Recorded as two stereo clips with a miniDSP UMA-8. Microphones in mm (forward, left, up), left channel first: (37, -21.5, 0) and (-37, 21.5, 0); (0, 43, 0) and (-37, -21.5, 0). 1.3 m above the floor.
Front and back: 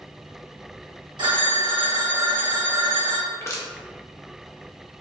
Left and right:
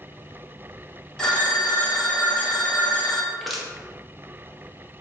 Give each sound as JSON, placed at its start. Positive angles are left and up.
{"t": 1.2, "sound": "a phone ringing", "azimuth_deg": 140, "distance_m": 1.0}
{"t": 3.3, "sound": "crushing", "azimuth_deg": -30, "distance_m": 0.7}